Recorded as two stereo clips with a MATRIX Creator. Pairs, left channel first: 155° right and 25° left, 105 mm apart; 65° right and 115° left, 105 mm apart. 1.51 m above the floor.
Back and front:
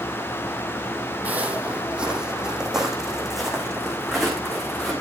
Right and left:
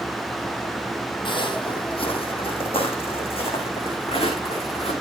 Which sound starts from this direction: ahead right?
Footsteps, at 1.2 s.